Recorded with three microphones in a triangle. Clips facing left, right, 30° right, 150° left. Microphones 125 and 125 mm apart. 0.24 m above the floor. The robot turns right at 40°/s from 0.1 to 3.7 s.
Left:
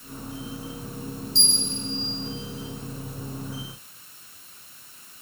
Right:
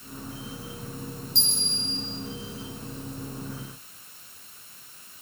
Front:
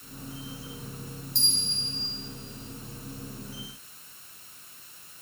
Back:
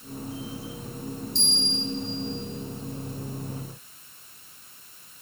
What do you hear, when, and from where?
1.4 s a bell: 60° right, 2.5 m; by 2.0 s 35° right, 2.5 m